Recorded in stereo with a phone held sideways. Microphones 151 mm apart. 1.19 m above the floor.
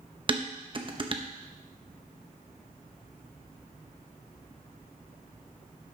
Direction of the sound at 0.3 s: 35° right (ahead or behind).